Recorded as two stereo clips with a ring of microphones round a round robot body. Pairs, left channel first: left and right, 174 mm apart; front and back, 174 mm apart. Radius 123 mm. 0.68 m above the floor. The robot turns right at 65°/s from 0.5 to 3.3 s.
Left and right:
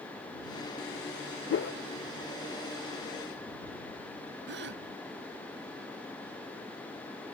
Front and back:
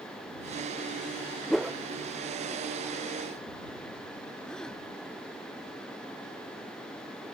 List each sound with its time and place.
1.5 s a whoosh: 85° left; by 1.8 s 105° left
4.5 s a gasp: 85° right